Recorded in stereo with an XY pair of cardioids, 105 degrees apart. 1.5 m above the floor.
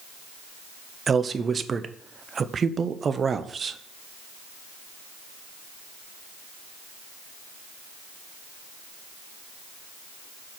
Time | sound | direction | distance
1.1 | a man speaking | 40° right | 0.7 m